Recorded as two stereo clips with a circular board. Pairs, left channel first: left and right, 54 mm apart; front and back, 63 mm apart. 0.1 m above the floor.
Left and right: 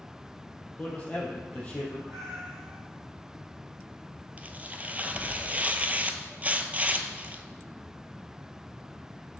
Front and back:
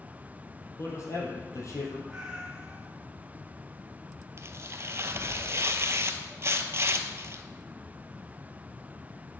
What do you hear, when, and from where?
0.8 s a man speaking: 30° left, 3 m
2.1 s a cat meowing: 100° right, 1.2 m
4.4 s tearing paper: 145° right, 0.7 m